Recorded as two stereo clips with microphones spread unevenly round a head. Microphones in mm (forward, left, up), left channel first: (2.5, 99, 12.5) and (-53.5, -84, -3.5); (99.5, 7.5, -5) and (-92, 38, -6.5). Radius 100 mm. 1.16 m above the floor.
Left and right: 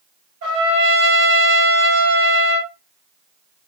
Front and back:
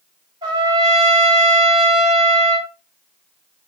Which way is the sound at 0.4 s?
120° right.